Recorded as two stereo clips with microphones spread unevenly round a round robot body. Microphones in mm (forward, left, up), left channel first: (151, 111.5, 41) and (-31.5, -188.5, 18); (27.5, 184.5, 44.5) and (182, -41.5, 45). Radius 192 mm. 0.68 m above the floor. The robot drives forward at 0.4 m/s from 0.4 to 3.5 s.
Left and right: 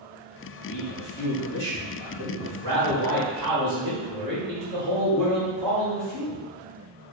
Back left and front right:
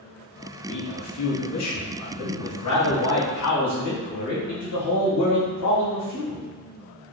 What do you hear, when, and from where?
0.7 s a man speaking: 85° left, 0.8 m; by 6.4 s 150° left, 1.4 m